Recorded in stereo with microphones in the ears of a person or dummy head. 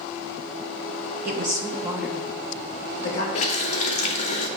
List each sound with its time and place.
1.2 s a woman speaking: 45° right (ahead or behind), 1.0 m; by 3.2 s 45° left (ahead or behind), 1.7 m
3.4 s a running tap: 40° left (ahead or behind), 0.7 m